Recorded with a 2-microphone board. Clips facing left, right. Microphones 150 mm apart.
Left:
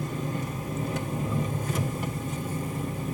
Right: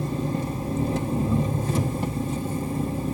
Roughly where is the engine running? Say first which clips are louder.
Right 5 dB; right.